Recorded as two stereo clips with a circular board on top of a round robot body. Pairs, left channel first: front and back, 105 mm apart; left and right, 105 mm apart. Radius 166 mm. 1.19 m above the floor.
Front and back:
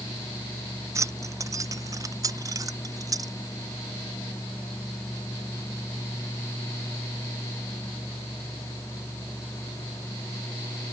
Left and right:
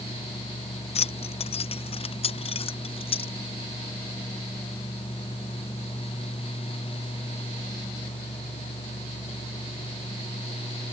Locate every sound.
0.9 s keys jangling: 120° left; by 3.3 s 125° left